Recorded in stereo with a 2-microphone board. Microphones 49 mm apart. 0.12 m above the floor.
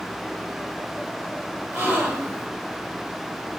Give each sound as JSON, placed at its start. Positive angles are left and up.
{"t": 1.7, "sound": "a gasp", "side_deg": -30, "distance_m": 1.9}